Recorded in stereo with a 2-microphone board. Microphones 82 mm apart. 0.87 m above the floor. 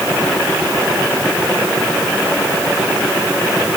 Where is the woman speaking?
I don't hear a woman speaking.